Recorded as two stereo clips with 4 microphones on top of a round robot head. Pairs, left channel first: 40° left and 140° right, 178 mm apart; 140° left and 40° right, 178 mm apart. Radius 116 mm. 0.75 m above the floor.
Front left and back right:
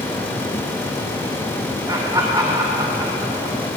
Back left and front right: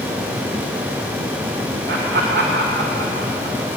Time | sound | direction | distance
1.9 | laughter | 70° right | 3 m